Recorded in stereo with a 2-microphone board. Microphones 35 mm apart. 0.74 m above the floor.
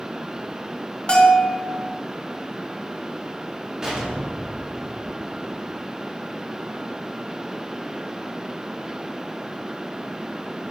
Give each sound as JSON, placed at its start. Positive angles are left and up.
{"t": 1.1, "sound": "a bell", "side_deg": 30, "distance_m": 1.2}
{"t": 3.8, "sound": "an explosion", "side_deg": -15, "distance_m": 1.4}